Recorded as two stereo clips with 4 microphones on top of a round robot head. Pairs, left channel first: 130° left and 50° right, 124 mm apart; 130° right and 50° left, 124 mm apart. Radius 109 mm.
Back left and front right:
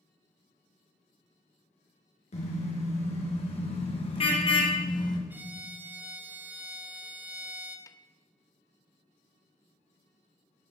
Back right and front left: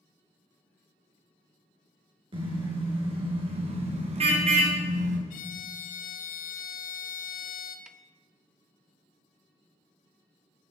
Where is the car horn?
100° left, 4.5 m; by 5.2 s 75° left, 2 m.